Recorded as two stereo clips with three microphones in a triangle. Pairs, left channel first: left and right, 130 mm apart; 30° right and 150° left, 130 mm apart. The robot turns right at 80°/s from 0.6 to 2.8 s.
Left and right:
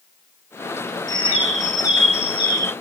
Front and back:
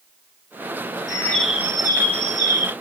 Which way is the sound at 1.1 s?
30° left.